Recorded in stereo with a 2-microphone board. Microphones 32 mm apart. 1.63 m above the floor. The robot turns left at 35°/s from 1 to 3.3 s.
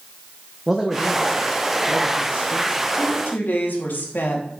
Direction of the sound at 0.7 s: Straight ahead.